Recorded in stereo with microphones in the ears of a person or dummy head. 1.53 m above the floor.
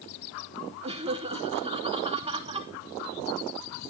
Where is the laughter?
30° right (ahead or behind), 2.5 m.